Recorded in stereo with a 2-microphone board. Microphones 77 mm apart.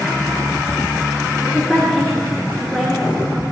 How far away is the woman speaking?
About 6.5 m.